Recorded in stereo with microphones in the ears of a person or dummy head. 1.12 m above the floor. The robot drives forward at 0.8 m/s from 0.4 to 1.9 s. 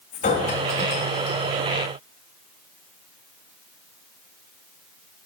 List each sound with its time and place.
0.1 s a clink: 30° left (ahead or behind), 1.2 m; by 1.5 s 20° left (ahead or behind), 2 m